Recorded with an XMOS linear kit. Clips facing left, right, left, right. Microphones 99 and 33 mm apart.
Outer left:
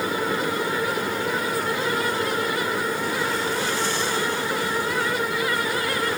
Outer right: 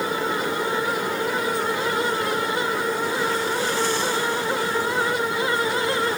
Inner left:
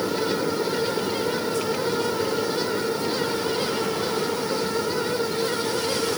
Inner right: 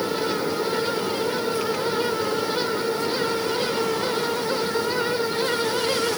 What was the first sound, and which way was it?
Only background noise.